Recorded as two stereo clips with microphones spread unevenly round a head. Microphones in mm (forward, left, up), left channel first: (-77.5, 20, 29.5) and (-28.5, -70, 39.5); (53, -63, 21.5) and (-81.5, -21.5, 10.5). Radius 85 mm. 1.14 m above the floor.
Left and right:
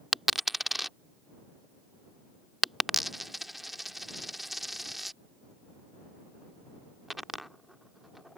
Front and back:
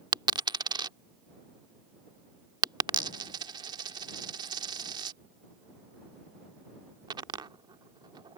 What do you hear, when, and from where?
0.1 s a dropped coin: 145° right